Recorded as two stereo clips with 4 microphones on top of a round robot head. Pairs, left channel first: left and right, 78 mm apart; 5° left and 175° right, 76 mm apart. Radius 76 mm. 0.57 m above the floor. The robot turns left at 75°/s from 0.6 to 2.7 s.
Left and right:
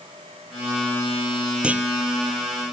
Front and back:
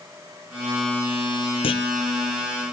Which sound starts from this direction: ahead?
A clunk, at 1.6 s.